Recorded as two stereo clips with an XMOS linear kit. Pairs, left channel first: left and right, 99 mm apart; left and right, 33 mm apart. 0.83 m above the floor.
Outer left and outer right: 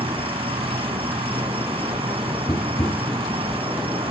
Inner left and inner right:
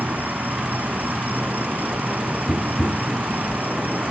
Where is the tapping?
25° left (ahead or behind).